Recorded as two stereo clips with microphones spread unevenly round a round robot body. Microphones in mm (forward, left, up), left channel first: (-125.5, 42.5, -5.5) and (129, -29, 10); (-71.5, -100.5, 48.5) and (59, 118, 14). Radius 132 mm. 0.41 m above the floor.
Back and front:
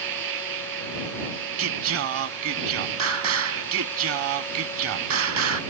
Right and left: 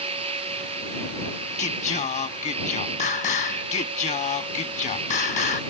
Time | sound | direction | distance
0.0 | an insect | 10° right | ?
1.6 | singing | 55° right | ?